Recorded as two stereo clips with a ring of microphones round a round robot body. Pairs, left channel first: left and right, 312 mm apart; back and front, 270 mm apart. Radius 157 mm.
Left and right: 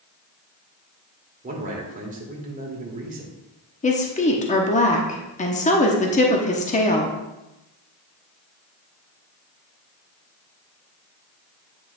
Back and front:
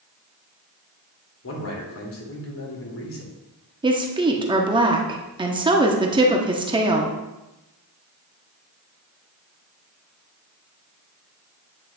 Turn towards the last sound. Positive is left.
turn(degrees=55)